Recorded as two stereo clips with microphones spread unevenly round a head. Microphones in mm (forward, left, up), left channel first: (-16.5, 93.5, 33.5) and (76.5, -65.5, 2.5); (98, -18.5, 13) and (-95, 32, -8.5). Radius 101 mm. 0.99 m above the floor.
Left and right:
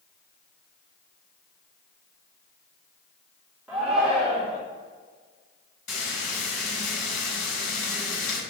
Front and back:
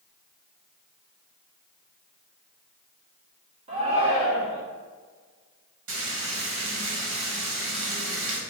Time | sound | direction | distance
3.7 | a shout | 140° right | 1.8 m
5.9 | frying | 150° left | 4 m